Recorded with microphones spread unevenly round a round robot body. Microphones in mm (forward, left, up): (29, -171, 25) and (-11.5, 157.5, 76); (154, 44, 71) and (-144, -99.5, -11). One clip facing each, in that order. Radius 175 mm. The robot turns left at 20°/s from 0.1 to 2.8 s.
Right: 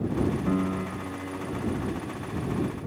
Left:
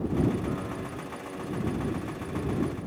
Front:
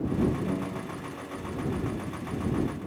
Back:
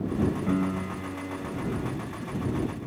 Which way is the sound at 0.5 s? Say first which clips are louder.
Right 6 dB, back 5 dB; 110° right.